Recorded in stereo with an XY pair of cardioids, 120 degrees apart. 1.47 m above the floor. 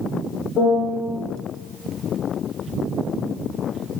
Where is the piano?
60° left, 0.8 m.